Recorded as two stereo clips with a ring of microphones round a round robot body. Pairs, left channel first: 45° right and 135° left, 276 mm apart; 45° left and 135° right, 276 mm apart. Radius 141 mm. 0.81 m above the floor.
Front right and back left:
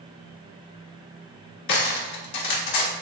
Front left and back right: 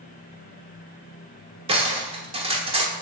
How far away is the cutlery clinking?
About 1.2 m.